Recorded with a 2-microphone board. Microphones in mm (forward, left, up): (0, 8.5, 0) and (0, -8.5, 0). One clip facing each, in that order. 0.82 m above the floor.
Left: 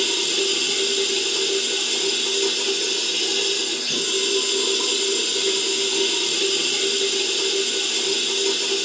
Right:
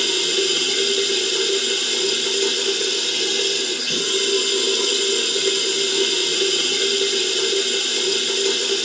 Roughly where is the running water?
Right.